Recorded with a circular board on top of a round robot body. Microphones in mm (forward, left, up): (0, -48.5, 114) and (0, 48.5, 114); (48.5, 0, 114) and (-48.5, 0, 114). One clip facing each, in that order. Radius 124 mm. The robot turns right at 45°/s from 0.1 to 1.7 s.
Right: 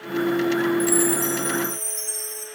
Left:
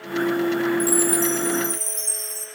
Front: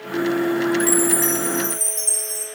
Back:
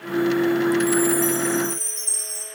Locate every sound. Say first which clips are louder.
0.8 s a chime: even, back 1 dB; straight ahead, 3.5 m; by 2.5 s 40° left, 3.5 m